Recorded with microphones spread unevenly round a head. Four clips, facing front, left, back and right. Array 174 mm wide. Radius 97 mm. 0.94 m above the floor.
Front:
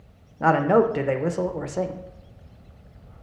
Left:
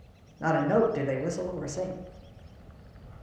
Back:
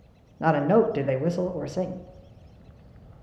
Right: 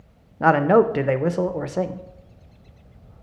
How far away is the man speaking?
About 0.6 m.